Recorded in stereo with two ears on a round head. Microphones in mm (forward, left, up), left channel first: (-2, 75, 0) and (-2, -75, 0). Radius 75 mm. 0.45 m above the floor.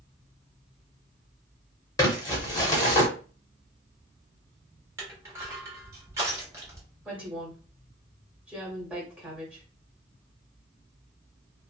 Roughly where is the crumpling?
Left.